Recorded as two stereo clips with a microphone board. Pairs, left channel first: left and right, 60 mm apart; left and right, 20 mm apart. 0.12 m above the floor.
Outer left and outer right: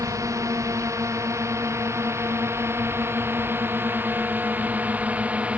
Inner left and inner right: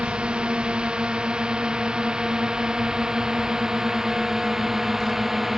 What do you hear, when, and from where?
0.0 s a drone: 60° right (ahead or behind); by 5.6 s 20° right (ahead or behind)